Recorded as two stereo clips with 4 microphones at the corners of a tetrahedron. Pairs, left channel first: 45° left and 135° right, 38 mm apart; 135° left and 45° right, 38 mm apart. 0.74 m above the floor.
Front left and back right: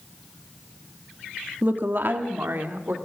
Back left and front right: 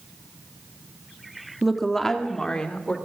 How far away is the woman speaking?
About 1.6 m.